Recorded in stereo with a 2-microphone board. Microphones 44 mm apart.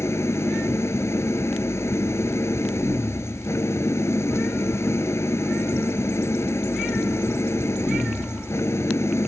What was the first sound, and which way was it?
An engine running, 80° left.